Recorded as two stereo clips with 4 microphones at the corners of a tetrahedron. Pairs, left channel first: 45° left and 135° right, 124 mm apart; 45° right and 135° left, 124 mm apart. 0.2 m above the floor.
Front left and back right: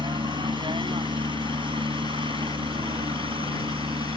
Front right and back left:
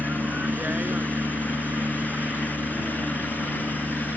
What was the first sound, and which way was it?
A helicopter, 155° right.